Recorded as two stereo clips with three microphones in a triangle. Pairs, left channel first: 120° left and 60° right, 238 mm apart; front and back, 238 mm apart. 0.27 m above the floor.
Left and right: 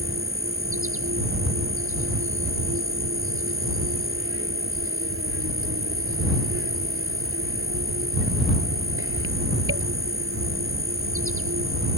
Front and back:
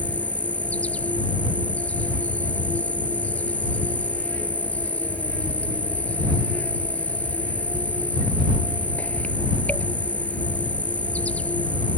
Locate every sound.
0.0 s an insect: 85° right